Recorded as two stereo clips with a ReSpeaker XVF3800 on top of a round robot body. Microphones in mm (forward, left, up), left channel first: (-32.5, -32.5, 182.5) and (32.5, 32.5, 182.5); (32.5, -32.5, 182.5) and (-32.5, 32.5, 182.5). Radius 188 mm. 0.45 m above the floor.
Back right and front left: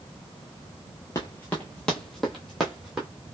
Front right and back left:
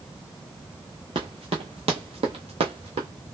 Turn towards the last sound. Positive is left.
turn(degrees=130)